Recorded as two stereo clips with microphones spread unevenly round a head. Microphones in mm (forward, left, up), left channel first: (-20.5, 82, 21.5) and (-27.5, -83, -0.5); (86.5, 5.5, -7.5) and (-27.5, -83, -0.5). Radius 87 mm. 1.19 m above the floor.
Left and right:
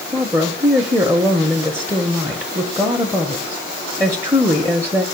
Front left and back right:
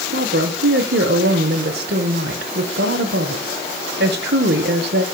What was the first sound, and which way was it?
A woman speaking, 170° right.